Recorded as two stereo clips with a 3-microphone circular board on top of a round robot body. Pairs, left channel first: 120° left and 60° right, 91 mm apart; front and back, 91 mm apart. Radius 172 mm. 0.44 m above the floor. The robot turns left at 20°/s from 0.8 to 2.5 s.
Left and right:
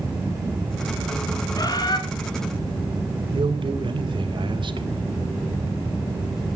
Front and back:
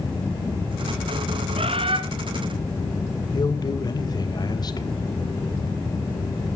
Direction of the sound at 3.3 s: 40° right.